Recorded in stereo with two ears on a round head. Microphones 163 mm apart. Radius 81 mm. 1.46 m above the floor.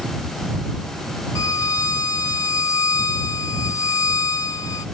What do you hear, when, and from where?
1.4 s a violin: 20° left (ahead or behind)